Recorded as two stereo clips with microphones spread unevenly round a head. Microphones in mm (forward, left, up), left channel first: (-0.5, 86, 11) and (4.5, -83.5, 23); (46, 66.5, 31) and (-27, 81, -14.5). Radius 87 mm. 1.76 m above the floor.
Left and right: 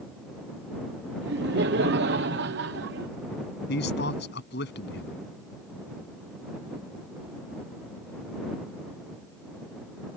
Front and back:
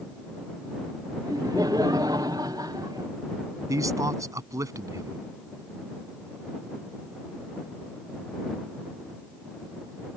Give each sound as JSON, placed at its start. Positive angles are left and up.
{"t": 1.2, "sound": "laughter", "azimuth_deg": -115}
{"t": 3.7, "sound": "a man speaking", "azimuth_deg": 120}